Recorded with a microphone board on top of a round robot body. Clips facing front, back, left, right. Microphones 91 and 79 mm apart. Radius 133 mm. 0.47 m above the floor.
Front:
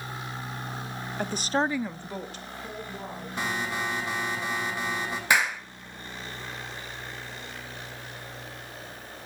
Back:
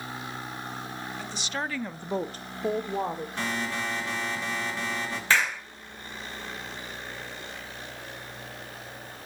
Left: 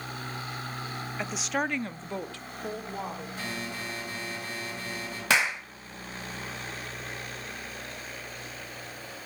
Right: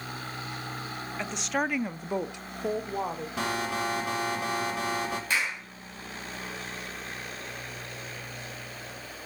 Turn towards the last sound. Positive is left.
turn(degrees=75)